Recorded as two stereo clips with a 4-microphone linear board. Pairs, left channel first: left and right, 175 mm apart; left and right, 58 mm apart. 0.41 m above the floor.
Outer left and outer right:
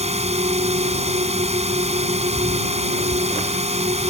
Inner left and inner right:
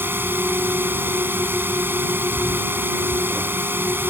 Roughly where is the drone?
Right.